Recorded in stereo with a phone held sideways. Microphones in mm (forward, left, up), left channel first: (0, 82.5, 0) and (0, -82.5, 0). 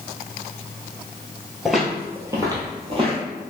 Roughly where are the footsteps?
Centre.